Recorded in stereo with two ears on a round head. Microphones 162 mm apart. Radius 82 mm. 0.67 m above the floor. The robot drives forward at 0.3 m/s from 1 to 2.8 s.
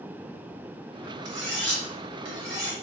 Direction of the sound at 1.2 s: 80° right.